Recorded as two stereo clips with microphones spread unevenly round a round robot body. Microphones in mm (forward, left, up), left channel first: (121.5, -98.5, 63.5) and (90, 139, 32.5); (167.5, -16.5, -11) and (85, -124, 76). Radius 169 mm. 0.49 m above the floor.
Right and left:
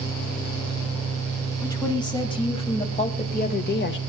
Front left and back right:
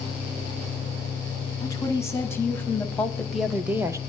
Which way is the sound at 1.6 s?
5° right.